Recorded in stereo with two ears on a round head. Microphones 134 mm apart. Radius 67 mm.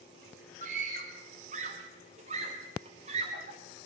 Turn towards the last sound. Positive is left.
turn(degrees=-45)  # may be behind; listen again after turning